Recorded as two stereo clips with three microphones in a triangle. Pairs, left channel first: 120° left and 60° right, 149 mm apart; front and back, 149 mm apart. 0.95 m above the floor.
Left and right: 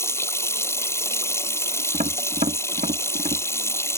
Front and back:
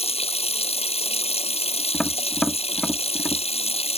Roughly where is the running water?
Ahead left.